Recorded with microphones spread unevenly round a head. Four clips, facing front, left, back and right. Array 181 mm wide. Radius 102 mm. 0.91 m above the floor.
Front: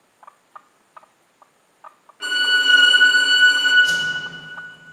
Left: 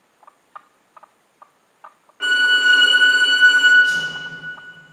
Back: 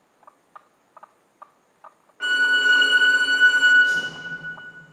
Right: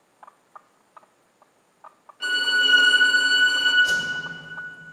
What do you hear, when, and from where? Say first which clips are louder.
2.2 s a violin: left 7 dB, back 1 dB; 85° left, 1.2 m
3.8 s a whoosh: left 3 dB, front 1 dB; 50° right, 1.6 m